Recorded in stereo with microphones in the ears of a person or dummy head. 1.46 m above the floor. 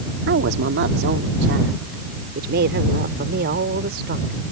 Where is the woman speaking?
65° right (ahead or behind); by 4.4 s 60° right (ahead or behind).